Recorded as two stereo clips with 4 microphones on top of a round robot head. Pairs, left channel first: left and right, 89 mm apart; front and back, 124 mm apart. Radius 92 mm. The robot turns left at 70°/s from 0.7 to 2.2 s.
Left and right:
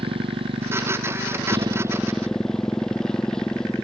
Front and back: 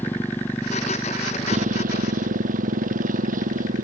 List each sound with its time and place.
0.0 s a motorcycle: 75° right; by 3.8 s 175° left